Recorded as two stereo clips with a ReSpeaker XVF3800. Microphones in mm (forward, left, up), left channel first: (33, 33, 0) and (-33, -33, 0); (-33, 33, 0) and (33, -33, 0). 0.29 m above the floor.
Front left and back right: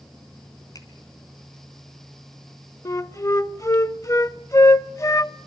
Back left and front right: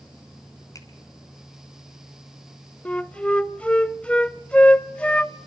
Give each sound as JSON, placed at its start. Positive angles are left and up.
{"t": 0.8, "sound": "a finger snap", "azimuth_deg": 85, "distance_m": 3.0}
{"t": 2.9, "sound": "a flute", "azimuth_deg": 65, "distance_m": 0.5}